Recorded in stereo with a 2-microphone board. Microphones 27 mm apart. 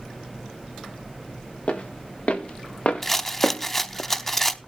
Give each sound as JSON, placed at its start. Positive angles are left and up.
{"t": 1.7, "sound": "footsteps", "side_deg": 60, "distance_m": 3.0}
{"t": 3.0, "sound": "a rattle", "side_deg": 10, "distance_m": 0.6}